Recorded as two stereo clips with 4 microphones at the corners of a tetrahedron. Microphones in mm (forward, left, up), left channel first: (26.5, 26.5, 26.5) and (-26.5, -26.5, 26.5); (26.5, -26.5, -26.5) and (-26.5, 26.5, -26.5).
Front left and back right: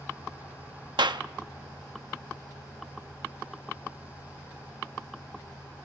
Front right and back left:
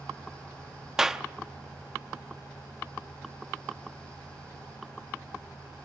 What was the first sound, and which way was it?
A clap, 145° right.